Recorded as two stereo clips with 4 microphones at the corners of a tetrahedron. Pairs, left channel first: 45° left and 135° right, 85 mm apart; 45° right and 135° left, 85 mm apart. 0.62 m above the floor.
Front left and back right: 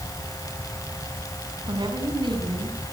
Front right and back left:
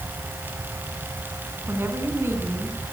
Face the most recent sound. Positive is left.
turn(degrees=-160)